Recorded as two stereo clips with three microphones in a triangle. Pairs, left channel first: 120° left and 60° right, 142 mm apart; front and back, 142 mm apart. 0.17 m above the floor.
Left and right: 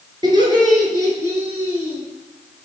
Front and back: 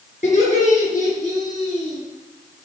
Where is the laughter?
5° right, 3 m; by 2.0 s 20° left, 3 m.